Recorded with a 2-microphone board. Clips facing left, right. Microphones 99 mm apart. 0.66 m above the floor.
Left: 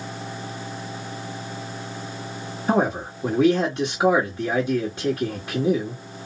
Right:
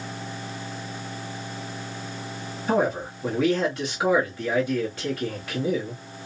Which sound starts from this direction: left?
A man speaking, at 2.7 s.